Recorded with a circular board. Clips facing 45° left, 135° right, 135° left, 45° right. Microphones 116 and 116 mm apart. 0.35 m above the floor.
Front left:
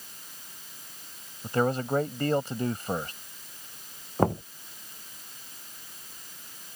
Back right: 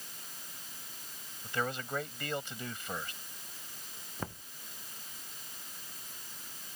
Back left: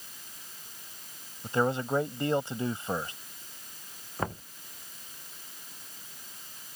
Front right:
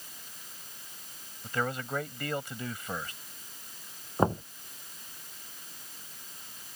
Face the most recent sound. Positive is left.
turn(degrees=15)